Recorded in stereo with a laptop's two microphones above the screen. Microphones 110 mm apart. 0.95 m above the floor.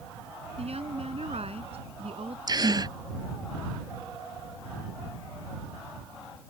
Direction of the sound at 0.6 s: 75° right (ahead or behind).